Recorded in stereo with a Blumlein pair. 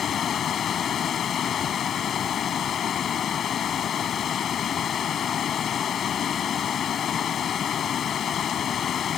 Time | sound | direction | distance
0.0 | running water | 25° left | ?